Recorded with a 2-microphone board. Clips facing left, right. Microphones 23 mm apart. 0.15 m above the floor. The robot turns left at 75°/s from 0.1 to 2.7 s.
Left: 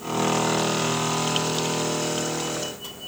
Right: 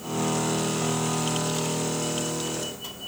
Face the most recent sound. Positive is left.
No sound to turn to.